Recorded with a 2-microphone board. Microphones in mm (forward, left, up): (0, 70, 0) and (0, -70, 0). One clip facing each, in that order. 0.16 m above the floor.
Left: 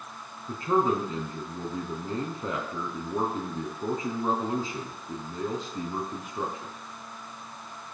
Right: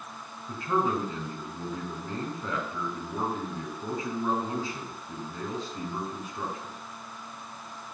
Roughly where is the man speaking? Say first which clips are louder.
Left 3 dB; left.